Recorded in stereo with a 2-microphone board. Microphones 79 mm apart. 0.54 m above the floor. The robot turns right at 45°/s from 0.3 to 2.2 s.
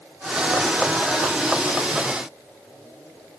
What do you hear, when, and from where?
Only background noise.